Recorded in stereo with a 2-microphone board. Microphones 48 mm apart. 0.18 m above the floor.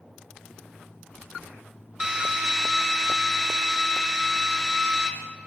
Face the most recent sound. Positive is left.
turn(degrees=-15)  # may be behind; listen again after turning